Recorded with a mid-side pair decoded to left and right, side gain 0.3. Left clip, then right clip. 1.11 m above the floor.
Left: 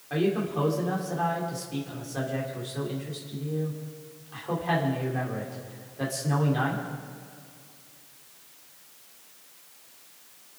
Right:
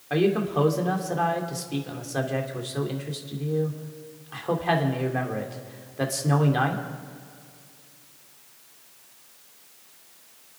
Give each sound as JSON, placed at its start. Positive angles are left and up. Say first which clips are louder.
{"t": 0.1, "sound": "a man speaking", "louder": "right 4 dB", "azimuth_deg": -70, "distance_m": 3.0}